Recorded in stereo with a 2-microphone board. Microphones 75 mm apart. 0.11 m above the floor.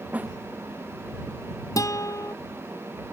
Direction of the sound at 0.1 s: 20° right (ahead or behind).